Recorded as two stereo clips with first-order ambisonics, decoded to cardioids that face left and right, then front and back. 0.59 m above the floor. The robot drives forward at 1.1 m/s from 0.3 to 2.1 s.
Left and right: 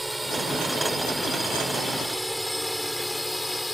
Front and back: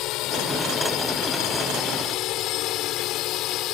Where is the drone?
5° right; by 3.8 s 10° left.